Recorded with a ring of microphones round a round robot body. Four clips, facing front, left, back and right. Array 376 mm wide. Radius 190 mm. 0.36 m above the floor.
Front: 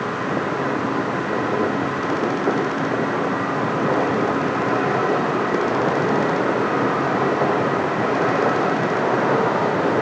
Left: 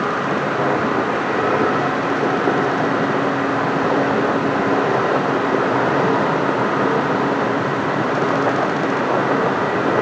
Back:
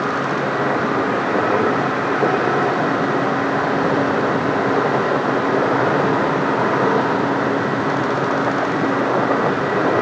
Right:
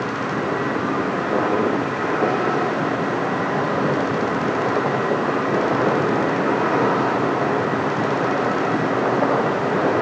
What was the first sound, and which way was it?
Only background noise.